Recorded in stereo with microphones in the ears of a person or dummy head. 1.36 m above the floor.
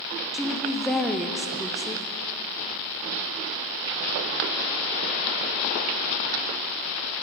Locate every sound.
0.3 s a woman speaking: centre (ahead or behind), 0.6 m